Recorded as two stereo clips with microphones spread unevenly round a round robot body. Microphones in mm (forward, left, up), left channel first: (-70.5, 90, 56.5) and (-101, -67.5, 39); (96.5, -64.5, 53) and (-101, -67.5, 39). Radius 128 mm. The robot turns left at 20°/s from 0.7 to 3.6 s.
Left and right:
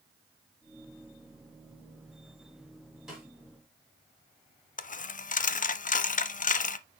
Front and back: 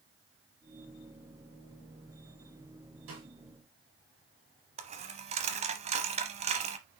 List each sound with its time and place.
3.1 s a snare drum: 170° left, 4.5 m
4.8 s a dropped coin: 120° left, 0.7 m